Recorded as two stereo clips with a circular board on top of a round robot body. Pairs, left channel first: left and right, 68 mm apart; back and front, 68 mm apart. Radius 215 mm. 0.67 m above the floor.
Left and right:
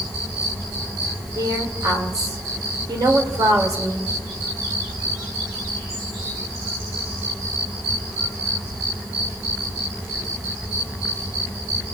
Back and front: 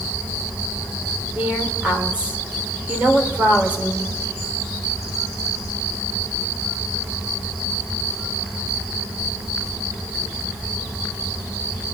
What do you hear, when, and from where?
1.4 s a woman speaking: 70° right, 3.5 m